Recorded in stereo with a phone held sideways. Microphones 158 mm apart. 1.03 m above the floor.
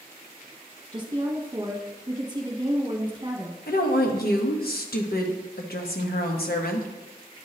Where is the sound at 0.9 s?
30° right (ahead or behind), 1.3 m.